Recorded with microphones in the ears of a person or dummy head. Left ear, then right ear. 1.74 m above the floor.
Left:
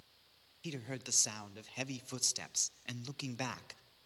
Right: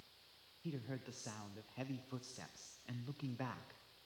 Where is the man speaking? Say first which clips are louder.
Left 6 dB; 80° left, 1.3 m.